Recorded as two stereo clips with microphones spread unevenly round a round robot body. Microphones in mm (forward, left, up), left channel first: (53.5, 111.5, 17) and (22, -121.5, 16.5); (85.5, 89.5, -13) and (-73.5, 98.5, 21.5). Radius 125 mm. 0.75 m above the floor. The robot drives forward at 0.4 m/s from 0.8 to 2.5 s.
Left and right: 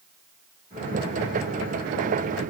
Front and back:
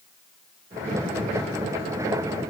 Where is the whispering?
I don't hear whispering.